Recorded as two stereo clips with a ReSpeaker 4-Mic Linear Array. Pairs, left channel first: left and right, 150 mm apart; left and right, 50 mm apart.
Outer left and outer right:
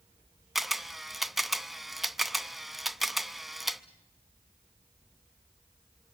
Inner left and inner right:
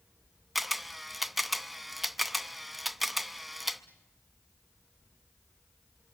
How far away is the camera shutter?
About 0.6 m.